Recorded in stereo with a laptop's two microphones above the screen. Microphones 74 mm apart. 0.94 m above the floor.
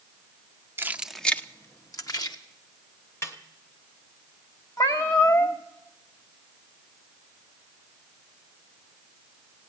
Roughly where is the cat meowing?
Left.